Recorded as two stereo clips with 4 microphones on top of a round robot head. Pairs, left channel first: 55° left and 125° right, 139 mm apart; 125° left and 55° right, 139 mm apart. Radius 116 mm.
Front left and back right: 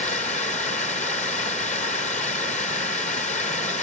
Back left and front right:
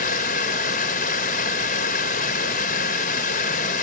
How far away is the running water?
About 2.5 m.